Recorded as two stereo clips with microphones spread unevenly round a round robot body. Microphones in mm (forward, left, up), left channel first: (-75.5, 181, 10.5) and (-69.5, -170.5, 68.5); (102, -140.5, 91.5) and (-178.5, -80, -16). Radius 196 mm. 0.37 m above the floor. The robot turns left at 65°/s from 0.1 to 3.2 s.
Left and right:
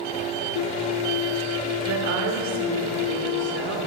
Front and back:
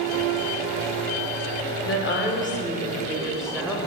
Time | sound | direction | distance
1.9 | a woman speaking | 50° right | 1.4 m